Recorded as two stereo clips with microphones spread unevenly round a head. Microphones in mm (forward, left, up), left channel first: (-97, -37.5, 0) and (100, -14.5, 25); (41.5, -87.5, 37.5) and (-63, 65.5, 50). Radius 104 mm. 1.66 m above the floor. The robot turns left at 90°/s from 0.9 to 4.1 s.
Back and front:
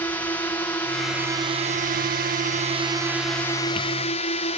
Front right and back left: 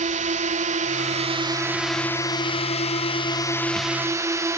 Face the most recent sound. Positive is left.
turn(degrees=-165)